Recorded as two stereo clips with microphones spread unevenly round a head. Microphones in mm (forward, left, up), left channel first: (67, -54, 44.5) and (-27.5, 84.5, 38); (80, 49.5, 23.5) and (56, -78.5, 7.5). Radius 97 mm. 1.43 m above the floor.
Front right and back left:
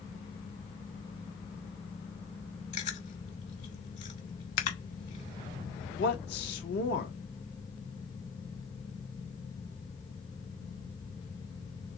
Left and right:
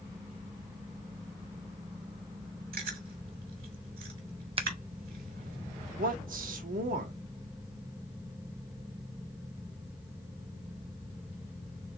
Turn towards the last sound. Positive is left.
turn(degrees=-90)